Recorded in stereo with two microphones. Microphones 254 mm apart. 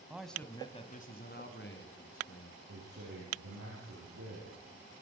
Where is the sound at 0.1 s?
5° right (ahead or behind), 1.7 m; by 2.6 s 60° left (ahead or behind), 3.5 m.